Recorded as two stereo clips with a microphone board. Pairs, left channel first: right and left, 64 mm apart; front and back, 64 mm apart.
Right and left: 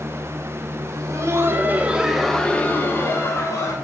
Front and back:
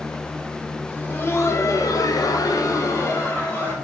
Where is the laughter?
60° left, 1.8 m; by 3.7 s 50° right, 2 m.